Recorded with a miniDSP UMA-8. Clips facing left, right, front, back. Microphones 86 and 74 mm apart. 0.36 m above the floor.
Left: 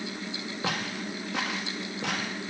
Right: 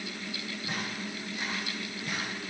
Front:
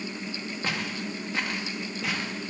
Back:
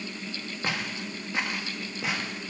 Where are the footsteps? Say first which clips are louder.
Left 5 dB, even; 100° left, 5 m; by 2.3 s 110° left, 6.5 m.